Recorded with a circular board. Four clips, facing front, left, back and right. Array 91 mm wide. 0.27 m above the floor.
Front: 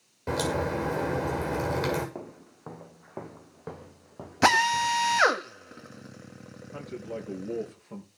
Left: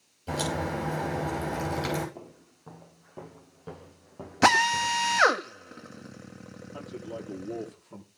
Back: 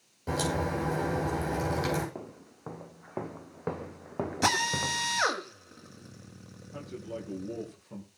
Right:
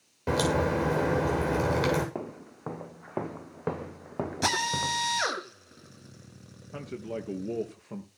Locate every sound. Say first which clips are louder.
0.3 s a crack: right 5 dB, front 2 dB; 70° right, 8 m
2.1 s footsteps: right 9 dB, front 2 dB; 85° right, 1.5 m; by 5.1 s 150° right, 1.1 m
4.4 s a drill: left 9 dB, front 8 dB; 55° left, 1.8 m
6.7 s a man speaking: right 3 dB, front 2 dB; 75° right, 5 m